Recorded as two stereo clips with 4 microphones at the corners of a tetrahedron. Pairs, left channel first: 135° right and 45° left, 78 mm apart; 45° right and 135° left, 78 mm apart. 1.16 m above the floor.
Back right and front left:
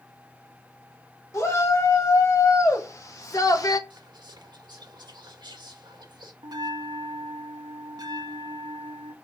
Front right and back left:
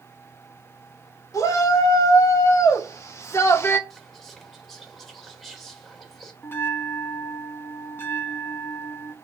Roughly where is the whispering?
Ahead left.